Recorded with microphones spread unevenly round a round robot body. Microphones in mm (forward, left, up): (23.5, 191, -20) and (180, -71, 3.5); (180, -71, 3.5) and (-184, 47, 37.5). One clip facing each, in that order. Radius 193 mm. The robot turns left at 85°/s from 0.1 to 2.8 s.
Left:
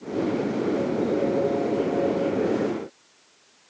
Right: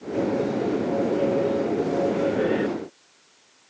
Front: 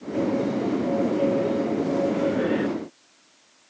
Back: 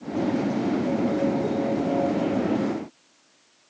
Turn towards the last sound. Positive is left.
No sound to turn to.